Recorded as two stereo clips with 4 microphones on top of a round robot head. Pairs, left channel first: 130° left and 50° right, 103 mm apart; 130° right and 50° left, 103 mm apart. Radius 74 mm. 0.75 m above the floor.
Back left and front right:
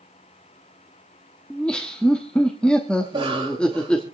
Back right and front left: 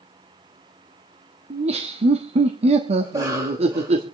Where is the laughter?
50° left, 1.3 m.